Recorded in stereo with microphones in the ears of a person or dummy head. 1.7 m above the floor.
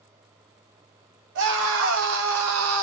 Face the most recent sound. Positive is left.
turn(degrees=-80)